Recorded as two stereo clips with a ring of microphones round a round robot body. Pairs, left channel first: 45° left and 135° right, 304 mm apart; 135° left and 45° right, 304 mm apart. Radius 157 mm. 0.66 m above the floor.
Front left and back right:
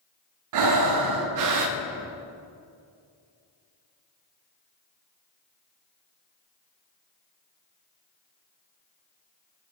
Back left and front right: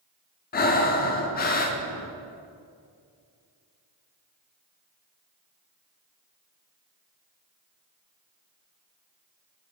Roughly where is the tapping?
No tapping in this recording.